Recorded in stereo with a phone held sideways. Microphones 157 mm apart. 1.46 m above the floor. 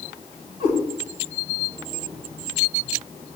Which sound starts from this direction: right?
A cat meowing, at 0.6 s.